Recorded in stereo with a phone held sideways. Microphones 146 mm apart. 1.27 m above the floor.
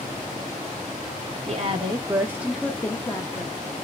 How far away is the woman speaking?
About 0.9 m.